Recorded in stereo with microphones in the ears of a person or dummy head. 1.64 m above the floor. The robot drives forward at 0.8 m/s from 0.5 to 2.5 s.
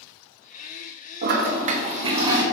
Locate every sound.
1.2 s a toilet flushing: 55° right (ahead or behind), 0.7 m; by 2.4 s 25° right (ahead or behind), 1.4 m